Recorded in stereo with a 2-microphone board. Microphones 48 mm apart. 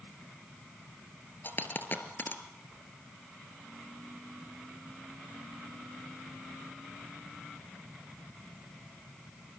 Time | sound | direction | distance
1.4 | a dropped coin | 45° left (ahead or behind) | 2 m